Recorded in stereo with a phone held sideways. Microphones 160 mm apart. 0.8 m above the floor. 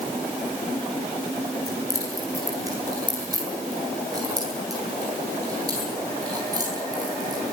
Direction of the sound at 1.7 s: 20° right (ahead or behind).